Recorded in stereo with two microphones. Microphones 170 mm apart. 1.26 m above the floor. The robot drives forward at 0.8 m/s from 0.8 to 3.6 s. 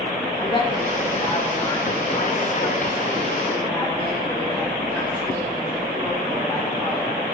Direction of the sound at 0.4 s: 30° left (ahead or behind).